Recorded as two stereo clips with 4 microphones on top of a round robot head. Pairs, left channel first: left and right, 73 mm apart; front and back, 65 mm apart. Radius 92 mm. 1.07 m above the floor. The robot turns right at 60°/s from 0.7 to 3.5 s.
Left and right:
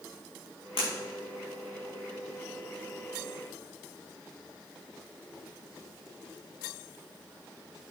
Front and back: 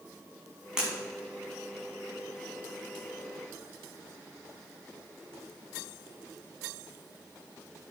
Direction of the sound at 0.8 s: 100° left.